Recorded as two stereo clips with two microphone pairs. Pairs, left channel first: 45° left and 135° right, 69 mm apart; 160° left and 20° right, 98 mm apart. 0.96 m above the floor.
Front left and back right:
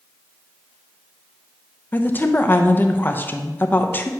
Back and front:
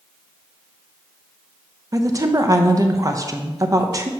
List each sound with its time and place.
1.9 s a woman speaking: 5° left, 0.6 m